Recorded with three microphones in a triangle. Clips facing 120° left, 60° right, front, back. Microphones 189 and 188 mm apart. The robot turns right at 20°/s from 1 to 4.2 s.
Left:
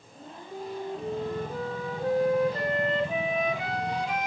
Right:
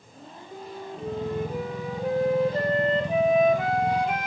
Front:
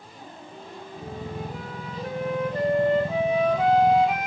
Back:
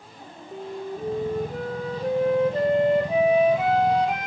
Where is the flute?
150° right, 2 m; by 4.3 s 85° right, 2 m.